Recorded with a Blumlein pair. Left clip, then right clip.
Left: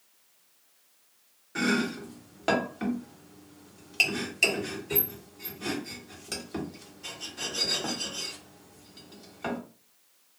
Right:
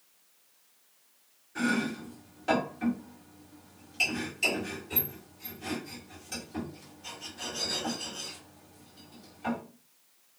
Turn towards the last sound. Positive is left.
turn(degrees=60)